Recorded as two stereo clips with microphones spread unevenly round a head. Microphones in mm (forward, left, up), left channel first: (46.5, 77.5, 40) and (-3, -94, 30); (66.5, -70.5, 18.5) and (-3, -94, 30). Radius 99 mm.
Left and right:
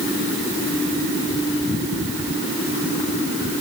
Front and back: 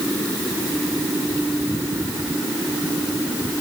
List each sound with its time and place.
Only background noise.